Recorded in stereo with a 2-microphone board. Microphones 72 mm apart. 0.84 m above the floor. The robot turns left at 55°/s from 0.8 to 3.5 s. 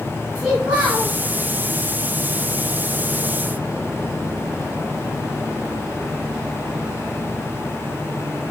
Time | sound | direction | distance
0.3 | a child speaking | 20° right (ahead or behind) | 4.5 m